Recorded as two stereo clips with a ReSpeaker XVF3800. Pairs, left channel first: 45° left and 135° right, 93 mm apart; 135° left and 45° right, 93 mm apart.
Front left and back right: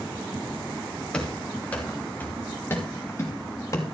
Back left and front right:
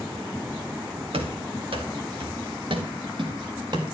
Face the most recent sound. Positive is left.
turn(degrees=-10)